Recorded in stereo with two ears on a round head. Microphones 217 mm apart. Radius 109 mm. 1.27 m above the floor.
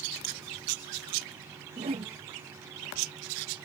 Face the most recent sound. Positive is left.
turn(degrees=-25)  # may be behind; listen again after turning